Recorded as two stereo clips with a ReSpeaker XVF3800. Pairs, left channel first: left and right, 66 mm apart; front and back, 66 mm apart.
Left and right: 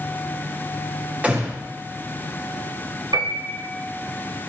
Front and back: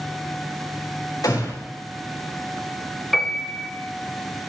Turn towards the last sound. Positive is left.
turn(degrees=-85)